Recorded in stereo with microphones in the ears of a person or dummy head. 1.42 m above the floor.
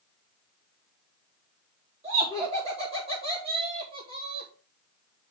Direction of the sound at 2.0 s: 25° right (ahead or behind).